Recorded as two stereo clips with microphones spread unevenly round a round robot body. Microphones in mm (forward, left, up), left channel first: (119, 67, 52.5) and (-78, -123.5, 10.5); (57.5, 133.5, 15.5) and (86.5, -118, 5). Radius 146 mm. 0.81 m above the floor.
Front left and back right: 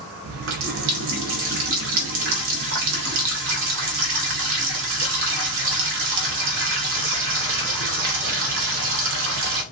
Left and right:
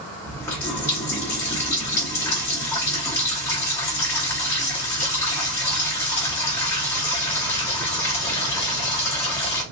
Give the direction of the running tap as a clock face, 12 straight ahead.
6 o'clock.